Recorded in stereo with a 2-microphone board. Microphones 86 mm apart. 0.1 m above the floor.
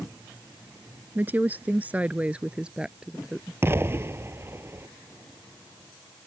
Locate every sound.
1.1 s a woman speaking: 20° right (ahead or behind); by 3.5 s 5° right (ahead or behind)
3.6 s an explosion: 30° right (ahead or behind)